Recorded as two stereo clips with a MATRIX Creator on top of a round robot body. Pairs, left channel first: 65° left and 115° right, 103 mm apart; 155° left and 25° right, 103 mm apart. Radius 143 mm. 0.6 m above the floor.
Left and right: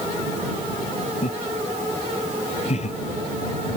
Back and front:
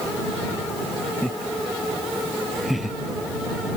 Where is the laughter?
70° left; by 3.0 s 65° left.